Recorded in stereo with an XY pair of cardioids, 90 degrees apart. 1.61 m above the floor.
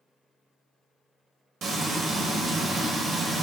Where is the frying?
65° right, 1.0 m.